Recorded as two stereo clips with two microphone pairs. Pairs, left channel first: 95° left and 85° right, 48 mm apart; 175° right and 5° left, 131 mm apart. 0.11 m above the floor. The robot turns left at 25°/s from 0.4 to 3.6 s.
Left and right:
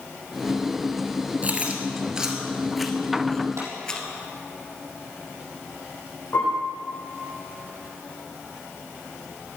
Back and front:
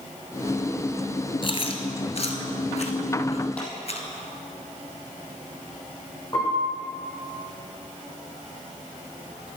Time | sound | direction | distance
1.4 | chewing | 140° right | 1.3 m
3.6 | a clap | 95° right | 4 m
6.3 | a piano | 120° left | 5.5 m